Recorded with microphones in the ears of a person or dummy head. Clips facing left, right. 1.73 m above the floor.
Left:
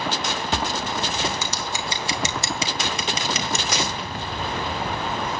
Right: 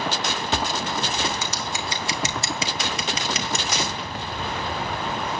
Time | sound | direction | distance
1.4 | scissors | 80° left | 3 m
3.7 | a dropped coin | 45° left (ahead or behind) | 1.6 m